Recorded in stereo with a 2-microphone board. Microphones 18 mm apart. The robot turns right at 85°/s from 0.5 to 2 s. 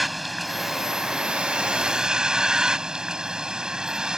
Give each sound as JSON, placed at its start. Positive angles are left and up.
{"t": 0.0, "sound": "a vehicle", "azimuth_deg": -175}